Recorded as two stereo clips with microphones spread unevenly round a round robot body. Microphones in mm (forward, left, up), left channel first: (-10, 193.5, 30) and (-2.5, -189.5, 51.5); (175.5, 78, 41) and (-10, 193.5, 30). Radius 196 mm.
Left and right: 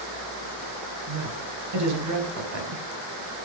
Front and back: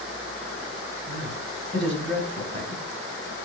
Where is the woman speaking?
140° right, 4 m.